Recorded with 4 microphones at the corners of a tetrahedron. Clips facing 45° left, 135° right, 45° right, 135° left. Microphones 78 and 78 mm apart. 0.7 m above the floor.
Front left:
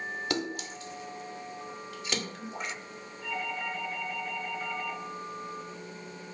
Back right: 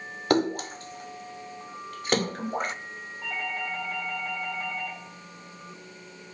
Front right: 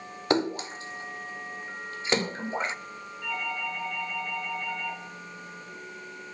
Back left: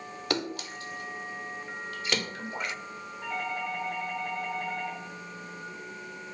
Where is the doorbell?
165° right, 8 m.